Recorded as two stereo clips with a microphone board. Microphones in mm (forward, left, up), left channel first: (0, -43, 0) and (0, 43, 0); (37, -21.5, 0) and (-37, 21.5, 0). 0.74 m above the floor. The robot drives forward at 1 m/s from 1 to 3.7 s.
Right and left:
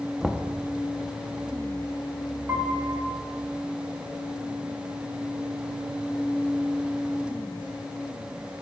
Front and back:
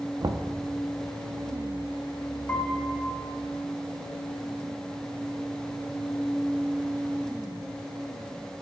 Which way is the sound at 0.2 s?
Straight behind.